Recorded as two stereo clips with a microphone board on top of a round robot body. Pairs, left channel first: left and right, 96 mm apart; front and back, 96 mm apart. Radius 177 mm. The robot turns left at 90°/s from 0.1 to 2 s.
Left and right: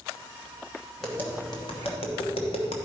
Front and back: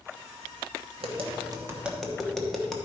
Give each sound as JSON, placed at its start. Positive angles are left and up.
{"t": 1.0, "sound": "tapping", "azimuth_deg": 180, "distance_m": 1.1}